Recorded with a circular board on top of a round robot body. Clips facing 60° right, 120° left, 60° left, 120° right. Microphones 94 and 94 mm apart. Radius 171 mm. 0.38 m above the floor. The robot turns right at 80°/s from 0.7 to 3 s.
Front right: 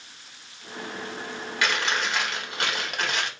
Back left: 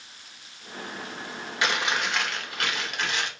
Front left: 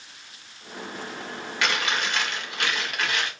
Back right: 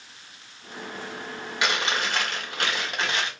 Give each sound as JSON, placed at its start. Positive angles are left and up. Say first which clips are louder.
{"t": 1.6, "sound": "chewing", "louder": "even, even", "azimuth_deg": 180, "distance_m": 1.6}